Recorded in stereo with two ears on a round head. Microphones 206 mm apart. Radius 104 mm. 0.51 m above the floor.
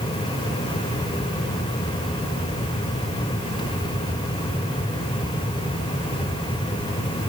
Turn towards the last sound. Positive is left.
No sound to turn to.